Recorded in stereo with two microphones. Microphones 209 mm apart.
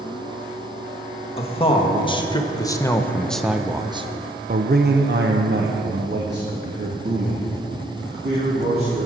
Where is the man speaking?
30° left (ahead or behind), 1.6 m; by 9.1 s 50° right (ahead or behind), 2.5 m.